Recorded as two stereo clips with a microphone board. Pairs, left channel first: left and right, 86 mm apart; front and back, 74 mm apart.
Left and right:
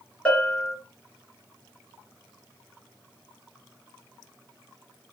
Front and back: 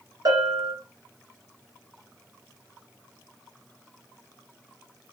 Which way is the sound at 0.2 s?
170° left.